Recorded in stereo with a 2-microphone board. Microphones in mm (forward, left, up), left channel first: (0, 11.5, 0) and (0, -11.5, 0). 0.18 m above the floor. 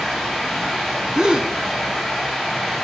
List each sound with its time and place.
0.0 s running water: 10° left (ahead or behind), 5 m
1.1 s a gasp: 35° right (ahead or behind), 0.6 m